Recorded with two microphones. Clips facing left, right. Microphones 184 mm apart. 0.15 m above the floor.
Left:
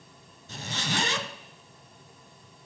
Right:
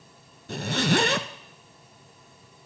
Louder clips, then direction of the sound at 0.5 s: Right 10 dB; 65° right (ahead or behind).